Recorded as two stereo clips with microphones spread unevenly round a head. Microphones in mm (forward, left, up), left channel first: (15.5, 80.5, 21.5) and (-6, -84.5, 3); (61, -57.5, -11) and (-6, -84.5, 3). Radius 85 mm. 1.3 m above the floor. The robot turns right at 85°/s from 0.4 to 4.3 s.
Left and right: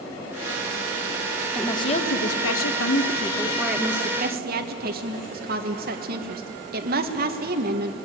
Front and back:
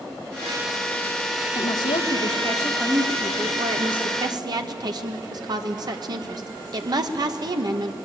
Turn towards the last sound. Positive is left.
turn(degrees=-130)